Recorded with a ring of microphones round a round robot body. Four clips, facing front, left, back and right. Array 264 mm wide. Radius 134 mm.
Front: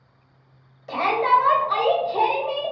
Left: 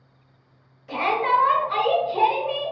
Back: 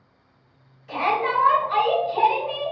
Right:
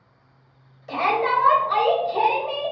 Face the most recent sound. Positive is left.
turn(degrees=-30)